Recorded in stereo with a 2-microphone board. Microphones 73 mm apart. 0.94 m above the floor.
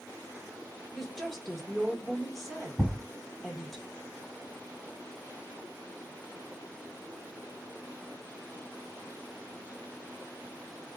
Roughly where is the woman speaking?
Centre.